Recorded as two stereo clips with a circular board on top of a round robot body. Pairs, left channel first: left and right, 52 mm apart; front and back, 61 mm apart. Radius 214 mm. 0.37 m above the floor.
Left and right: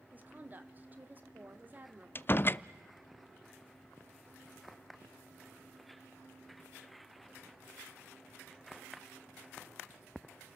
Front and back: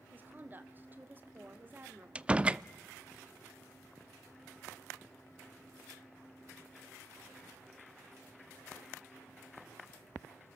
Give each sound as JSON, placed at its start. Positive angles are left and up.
{"t": 0.1, "sound": "a woman speaking", "azimuth_deg": -135, "distance_m": 1.9}
{"t": 2.1, "sound": "a door slam", "azimuth_deg": 115, "distance_m": 0.6}